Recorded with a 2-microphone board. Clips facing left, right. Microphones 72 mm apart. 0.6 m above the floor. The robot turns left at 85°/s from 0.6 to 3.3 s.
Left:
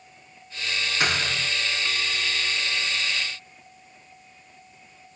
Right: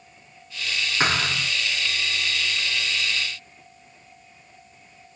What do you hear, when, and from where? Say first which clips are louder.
1.0 s a thud: right 3 dB; 25° right, 2.5 m; by 1.5 s 70° right, 2.5 m